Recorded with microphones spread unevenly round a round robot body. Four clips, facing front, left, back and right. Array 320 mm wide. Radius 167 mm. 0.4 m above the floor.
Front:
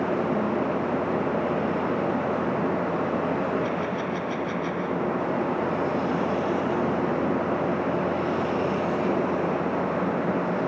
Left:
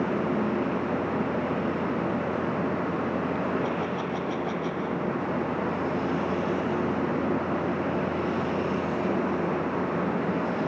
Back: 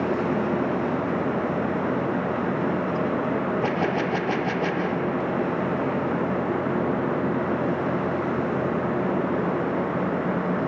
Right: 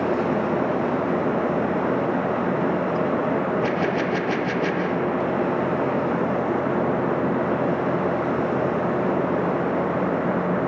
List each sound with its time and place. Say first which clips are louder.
3.6 s a gunshot: right 6 dB, back 3 dB; 115° right